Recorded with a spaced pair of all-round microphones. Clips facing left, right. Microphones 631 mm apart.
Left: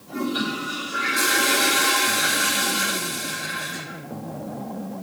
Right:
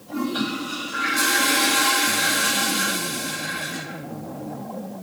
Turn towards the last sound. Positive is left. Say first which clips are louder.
# right 1 dB
turn(degrees=50)  # may be behind; listen again after turning